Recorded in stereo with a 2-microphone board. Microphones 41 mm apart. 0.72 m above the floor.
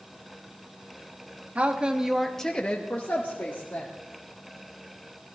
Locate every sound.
1.6 s a woman speaking: 35° right (ahead or behind), 1.2 m; by 3.9 s 50° left (ahead or behind), 2 m